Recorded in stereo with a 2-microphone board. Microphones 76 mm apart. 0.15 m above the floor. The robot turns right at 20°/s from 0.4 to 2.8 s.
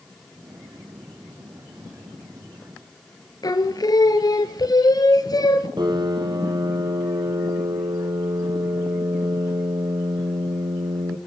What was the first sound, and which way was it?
Singing, 55° left (ahead or behind).